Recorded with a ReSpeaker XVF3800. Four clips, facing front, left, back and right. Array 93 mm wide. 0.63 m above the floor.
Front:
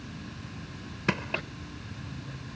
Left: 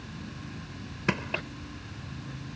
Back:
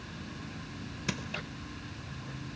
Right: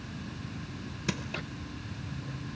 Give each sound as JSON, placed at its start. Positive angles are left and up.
{"t": 1.1, "sound": "crushing", "azimuth_deg": 45}